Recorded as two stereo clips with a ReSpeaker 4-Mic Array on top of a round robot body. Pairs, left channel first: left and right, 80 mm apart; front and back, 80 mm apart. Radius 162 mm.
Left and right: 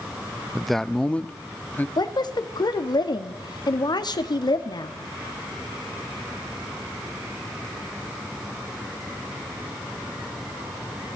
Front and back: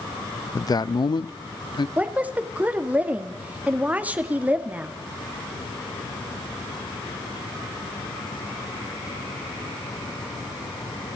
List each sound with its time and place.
0.6 s a man speaking: 5° right, 0.6 m; by 1.9 s 25° left, 1.4 m
2.0 s a woman speaking: 110° left, 1.8 m